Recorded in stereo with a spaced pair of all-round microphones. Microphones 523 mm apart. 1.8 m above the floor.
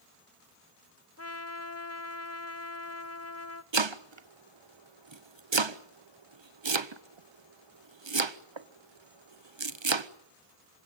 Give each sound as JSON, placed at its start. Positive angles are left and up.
{"t": 1.2, "sound": "a trumpet", "side_deg": 30, "distance_m": 1.0}
{"t": 3.7, "sound": "chopping", "side_deg": -60, "distance_m": 0.9}